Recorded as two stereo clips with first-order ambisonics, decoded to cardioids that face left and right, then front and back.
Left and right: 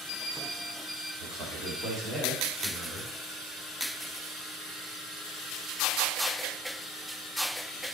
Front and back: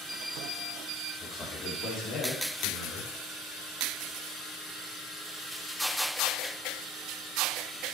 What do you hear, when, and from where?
1.2 s a man speaking: 65° right, 1.9 m; by 3.1 s 5° right, 2.5 m